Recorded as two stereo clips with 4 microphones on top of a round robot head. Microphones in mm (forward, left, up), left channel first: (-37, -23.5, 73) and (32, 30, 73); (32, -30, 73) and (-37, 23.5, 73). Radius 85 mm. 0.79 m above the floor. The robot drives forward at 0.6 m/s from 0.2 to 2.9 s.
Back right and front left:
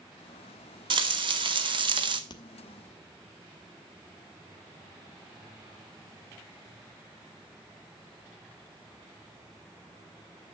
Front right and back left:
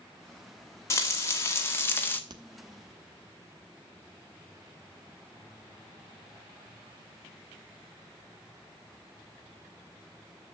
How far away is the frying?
About 2 m.